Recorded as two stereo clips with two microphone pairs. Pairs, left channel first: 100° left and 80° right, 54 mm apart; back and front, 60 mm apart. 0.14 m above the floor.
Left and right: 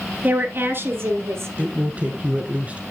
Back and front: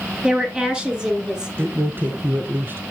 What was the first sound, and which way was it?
A woman speaking, 65° right.